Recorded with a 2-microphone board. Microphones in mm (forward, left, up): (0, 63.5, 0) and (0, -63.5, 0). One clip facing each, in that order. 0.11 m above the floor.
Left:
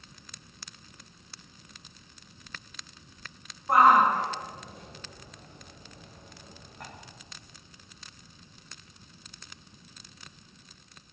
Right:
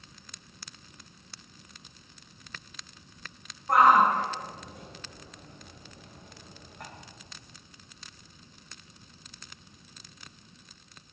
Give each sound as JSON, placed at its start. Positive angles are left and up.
{"t": 3.7, "sound": "a shout", "side_deg": 10, "distance_m": 6.0}